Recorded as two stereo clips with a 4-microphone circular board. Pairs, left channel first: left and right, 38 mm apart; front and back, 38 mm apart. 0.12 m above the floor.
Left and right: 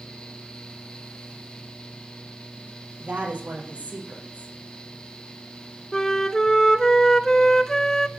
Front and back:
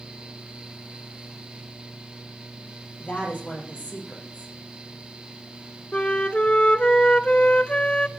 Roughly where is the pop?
I don't hear a pop.